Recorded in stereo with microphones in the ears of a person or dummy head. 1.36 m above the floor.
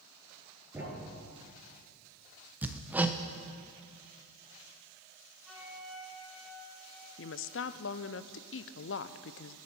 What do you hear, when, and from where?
0.7 s a thud: 10° right (ahead or behind), 4 m
2.6 s hammering: 10° right (ahead or behind), 0.7 m
5.4 s a flute: centre (ahead or behind), 3.5 m
7.2 s a woman speaking: 55° left (ahead or behind), 0.6 m